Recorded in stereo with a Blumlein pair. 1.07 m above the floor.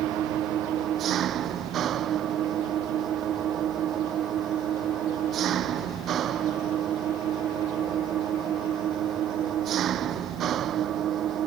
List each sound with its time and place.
0.0 s an engine running: 30° right